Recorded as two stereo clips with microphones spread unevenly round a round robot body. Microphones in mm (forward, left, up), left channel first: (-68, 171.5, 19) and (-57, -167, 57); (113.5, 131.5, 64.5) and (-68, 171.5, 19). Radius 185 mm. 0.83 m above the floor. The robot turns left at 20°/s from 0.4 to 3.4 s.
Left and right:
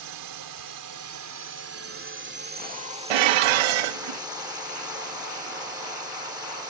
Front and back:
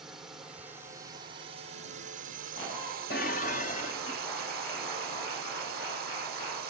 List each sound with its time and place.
0.0 s a drone: 110° right; by 6.7 s 170° right
3.1 s dishes clattering: 75° right; by 4.2 s 80° right